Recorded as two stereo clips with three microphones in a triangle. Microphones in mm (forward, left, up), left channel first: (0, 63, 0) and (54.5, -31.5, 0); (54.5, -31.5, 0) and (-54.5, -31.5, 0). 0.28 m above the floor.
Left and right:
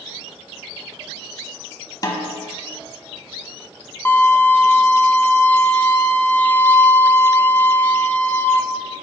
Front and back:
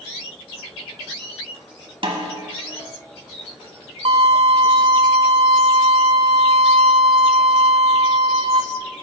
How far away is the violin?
About 0.6 m.